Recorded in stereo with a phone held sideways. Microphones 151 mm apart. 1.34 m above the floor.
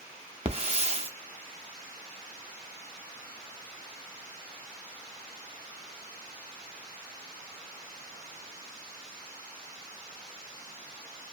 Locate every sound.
0.5 s a hiss: 40° right (ahead or behind), 0.5 m